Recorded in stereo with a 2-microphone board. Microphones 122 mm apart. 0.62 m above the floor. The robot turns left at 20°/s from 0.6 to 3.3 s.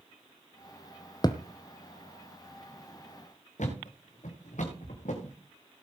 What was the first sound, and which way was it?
A thud, 35° left (ahead or behind).